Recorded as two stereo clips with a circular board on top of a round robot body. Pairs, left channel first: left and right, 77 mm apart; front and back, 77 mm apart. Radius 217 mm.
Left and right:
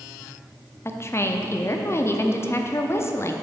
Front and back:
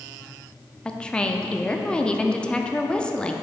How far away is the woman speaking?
About 0.9 m.